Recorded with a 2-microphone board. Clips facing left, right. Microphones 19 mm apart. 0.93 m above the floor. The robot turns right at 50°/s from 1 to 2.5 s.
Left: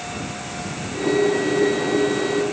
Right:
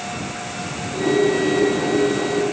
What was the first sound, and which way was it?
Only background noise.